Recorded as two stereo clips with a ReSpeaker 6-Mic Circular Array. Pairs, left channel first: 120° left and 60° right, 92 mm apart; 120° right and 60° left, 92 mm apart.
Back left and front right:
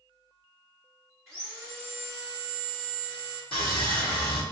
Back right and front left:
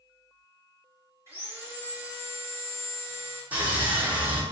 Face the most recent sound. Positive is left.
turn(degrees=130)